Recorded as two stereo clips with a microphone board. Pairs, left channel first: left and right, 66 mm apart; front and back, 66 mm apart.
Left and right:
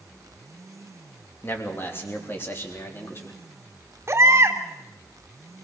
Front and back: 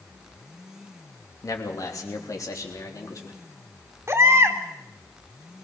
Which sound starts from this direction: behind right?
A baby crying, at 4.1 s.